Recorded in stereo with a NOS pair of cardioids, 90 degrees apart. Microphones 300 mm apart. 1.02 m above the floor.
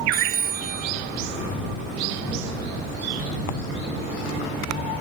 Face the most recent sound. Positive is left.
turn(degrees=-30)